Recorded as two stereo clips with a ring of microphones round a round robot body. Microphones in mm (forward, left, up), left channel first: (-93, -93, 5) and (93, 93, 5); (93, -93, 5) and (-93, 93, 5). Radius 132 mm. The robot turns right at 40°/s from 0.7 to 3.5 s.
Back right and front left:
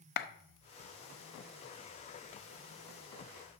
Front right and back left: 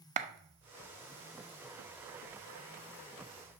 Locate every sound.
0.2 s a clap: 175° right, 0.7 m